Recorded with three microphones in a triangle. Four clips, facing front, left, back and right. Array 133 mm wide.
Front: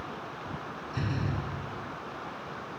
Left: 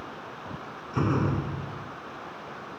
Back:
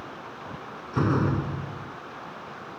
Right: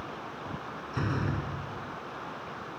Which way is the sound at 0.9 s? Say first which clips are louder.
Left 6 dB, back 10 dB; 145° left.